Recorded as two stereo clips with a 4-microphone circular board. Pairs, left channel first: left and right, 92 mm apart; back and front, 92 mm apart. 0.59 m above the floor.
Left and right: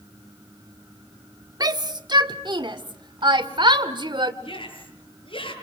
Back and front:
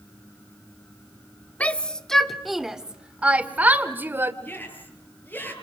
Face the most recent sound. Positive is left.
turn(degrees=110)